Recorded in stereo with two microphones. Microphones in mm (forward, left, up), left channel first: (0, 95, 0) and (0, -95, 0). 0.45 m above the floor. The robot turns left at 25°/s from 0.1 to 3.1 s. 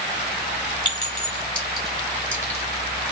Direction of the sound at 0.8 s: 25° left (ahead or behind).